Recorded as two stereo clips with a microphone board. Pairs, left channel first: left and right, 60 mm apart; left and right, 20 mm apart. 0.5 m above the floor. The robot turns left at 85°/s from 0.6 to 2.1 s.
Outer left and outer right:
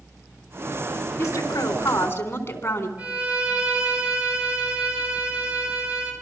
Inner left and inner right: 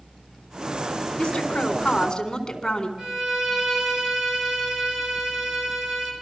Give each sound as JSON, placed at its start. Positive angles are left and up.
{"t": 1.2, "sound": "a woman speaking", "azimuth_deg": 120, "distance_m": 4.0}
{"t": 3.0, "sound": "a violin", "side_deg": -20, "distance_m": 7.0}